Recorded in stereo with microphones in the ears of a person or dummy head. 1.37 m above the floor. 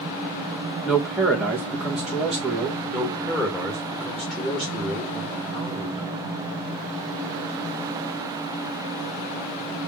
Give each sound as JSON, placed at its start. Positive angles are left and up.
{"t": 0.8, "sound": "a man speaking", "side_deg": -5, "distance_m": 1.2}
{"t": 2.9, "sound": "a man speaking", "side_deg": -5, "distance_m": 1.7}